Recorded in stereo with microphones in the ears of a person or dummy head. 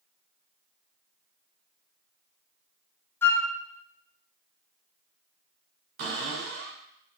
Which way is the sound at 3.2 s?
10° left (ahead or behind).